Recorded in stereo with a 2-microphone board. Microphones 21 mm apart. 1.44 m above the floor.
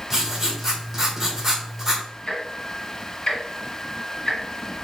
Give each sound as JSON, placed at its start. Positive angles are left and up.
{"t": 0.1, "sound": "writing", "side_deg": -10, "distance_m": 1.7}
{"t": 2.3, "sound": "ticking", "side_deg": 35, "distance_m": 1.7}